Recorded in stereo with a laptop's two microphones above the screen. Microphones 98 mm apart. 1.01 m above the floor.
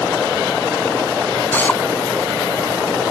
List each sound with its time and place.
1.5 s a drill: 15° left (ahead or behind)